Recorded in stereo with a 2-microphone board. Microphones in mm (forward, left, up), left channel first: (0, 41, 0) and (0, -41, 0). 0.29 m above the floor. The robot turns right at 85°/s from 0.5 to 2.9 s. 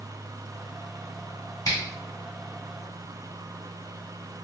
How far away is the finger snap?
About 1.2 m.